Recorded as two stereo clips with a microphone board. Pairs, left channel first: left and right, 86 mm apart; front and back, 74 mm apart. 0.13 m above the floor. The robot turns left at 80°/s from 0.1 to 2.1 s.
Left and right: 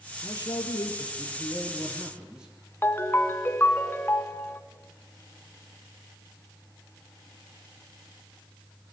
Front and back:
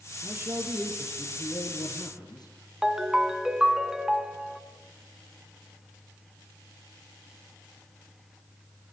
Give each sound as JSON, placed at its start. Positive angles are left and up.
{"t": 0.2, "sound": "a man speaking", "azimuth_deg": 140, "distance_m": 3.5}
{"t": 2.8, "sound": "a ringtone", "azimuth_deg": 100, "distance_m": 1.1}